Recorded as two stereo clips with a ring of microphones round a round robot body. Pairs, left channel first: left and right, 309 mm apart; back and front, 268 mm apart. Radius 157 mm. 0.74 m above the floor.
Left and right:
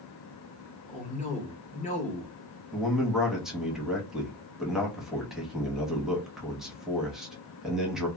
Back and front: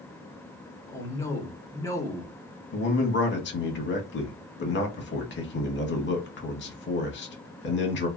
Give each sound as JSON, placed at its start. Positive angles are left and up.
{"t": 0.9, "sound": "a man speaking", "azimuth_deg": 115, "distance_m": 1.0}
{"t": 2.7, "sound": "a man speaking", "azimuth_deg": -175, "distance_m": 0.9}